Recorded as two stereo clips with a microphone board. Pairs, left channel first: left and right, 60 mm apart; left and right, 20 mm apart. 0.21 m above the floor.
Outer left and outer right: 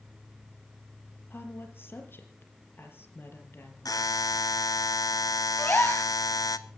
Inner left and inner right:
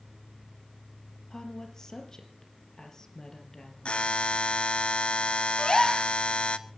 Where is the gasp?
30° left (ahead or behind), 2.5 m.